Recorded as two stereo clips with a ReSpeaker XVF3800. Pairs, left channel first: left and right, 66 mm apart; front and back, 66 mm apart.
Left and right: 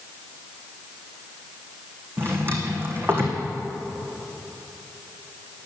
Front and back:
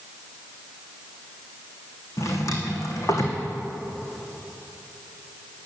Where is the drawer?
35° right, 2.5 m.